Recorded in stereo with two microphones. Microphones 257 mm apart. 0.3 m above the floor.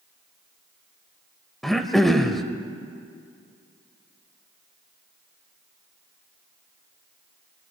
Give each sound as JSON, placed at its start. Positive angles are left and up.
{"t": 1.6, "sound": "throat clearing", "side_deg": 0, "distance_m": 0.8}